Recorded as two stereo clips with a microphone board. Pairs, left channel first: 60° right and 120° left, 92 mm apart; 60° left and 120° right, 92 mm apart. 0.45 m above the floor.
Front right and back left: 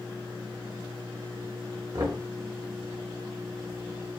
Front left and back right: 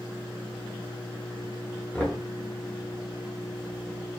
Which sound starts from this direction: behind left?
Knocking, at 1.9 s.